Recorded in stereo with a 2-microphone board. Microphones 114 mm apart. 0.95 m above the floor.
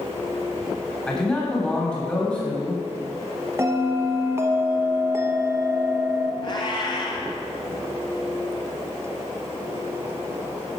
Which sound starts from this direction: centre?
A man speaking, at 1.1 s.